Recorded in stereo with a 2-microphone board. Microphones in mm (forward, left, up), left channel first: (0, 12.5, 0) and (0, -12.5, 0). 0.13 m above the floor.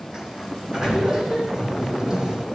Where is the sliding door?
25° right (ahead or behind), 7.5 m.